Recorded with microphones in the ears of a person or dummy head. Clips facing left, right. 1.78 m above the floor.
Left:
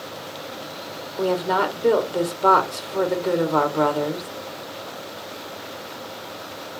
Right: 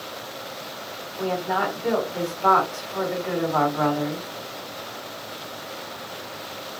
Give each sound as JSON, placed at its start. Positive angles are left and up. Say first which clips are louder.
{"t": 1.2, "sound": "a woman speaking", "louder": "left 4 dB", "side_deg": 50, "distance_m": 1.4}